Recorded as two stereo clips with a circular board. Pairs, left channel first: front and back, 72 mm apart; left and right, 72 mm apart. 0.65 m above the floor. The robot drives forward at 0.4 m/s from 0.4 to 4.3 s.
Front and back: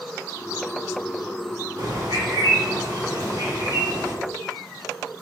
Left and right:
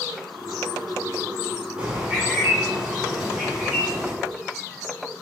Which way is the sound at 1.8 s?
165° right.